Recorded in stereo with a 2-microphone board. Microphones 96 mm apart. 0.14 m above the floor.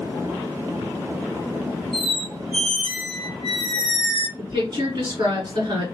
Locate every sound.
1.9 s a squeak: 50° right (ahead or behind), 1.1 m
4.4 s a woman speaking: 45° right (ahead or behind), 2.0 m